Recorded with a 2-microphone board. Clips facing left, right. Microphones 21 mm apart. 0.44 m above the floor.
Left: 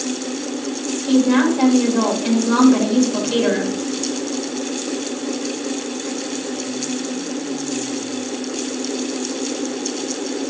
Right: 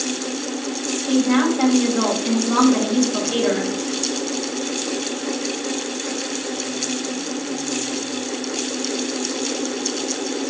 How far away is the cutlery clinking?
I don't hear cutlery clinking.